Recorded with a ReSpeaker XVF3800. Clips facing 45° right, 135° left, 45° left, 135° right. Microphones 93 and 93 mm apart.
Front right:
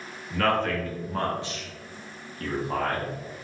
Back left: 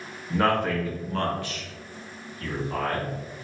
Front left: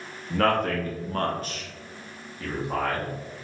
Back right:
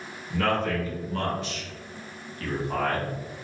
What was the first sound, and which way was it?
A man speaking, 75° left.